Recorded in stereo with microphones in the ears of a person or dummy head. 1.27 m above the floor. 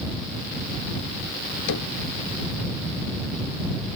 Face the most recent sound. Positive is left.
turn(degrees=75)  # may be behind; listen again after turning